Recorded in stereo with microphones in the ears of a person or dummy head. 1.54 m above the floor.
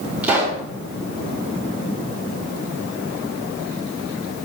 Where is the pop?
5° right (ahead or behind), 3 m.